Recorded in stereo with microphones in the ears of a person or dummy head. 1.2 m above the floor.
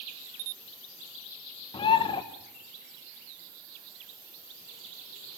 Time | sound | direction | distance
1.7 | a bird | 20° left (ahead or behind) | 1.1 m